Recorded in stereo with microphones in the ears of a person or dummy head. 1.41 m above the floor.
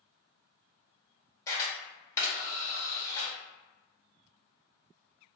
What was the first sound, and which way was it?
A camera shutter, 20° left (ahead or behind).